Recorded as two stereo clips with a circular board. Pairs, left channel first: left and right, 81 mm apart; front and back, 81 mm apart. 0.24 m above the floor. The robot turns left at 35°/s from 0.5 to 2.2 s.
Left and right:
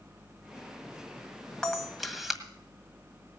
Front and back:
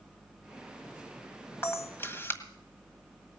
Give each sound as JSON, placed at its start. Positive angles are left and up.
{"t": 1.6, "sound": "a camera shutter", "azimuth_deg": 15, "distance_m": 1.6}